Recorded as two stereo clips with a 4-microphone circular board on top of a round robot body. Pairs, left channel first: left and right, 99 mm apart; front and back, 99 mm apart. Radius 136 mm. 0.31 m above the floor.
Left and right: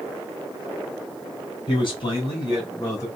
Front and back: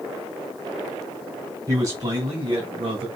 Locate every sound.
1.7 s a man speaking: 125° left, 3 m; by 3.1 s 145° left, 3 m